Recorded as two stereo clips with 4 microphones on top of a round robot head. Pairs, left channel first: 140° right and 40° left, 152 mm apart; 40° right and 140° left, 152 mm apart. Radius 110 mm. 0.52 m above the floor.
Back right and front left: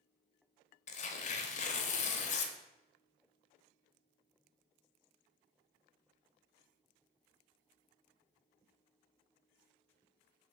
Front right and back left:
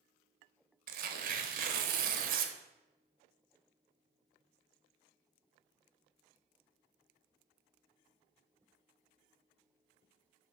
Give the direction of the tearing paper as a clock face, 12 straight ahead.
6 o'clock.